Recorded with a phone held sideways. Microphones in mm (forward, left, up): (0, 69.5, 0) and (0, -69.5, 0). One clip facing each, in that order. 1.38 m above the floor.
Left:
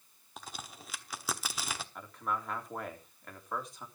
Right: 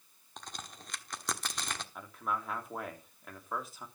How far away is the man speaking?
About 3 m.